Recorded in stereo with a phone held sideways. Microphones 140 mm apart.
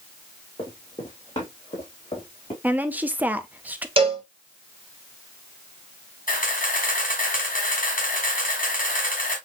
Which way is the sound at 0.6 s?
40° left (ahead or behind).